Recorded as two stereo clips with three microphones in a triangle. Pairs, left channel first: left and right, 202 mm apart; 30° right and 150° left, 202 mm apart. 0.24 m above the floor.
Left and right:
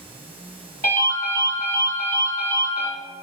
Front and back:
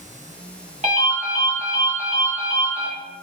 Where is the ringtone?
110° left, 1.1 m.